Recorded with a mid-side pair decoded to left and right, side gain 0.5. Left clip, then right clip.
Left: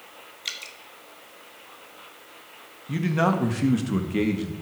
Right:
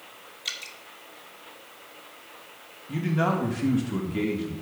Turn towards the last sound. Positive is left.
turn(degrees=65)